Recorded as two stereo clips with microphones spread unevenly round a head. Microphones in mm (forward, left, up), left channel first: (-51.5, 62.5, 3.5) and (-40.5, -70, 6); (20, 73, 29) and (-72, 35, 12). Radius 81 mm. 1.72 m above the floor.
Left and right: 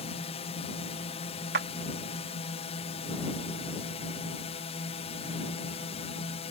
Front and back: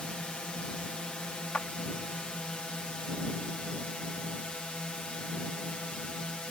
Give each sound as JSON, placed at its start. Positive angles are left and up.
{"t": 0.0, "sound": "a drone", "azimuth_deg": 105}
{"t": 1.5, "sound": "a clap", "azimuth_deg": -60}